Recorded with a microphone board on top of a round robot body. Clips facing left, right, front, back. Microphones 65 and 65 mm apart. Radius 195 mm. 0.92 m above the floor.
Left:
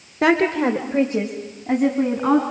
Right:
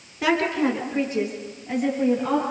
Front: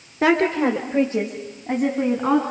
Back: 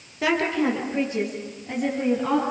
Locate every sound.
0.2 s a woman speaking: 50° left, 1.6 m; by 2.4 s 60° left, 3.5 m